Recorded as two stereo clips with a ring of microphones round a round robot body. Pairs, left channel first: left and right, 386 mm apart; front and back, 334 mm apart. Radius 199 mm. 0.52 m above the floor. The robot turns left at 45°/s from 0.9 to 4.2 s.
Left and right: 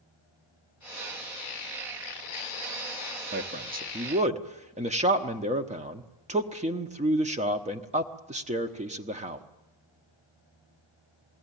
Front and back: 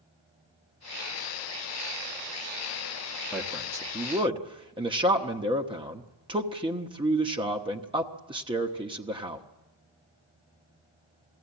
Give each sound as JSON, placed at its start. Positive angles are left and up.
{"t": 3.3, "sound": "a man speaking", "azimuth_deg": -90, "distance_m": 1.1}